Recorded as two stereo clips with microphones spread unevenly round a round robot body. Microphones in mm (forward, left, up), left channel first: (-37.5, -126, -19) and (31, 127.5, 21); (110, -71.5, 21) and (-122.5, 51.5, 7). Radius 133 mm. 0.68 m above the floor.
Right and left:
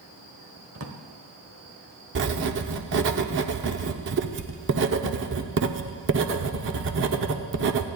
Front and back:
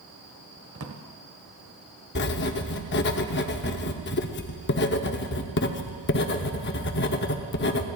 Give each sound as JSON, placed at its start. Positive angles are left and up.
{"t": 0.8, "sound": "a drawer", "azimuth_deg": 115, "distance_m": 1.5}
{"t": 2.1, "sound": "writing", "azimuth_deg": 25, "distance_m": 0.9}